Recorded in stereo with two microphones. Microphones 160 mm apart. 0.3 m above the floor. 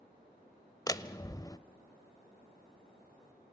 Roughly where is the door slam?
Left.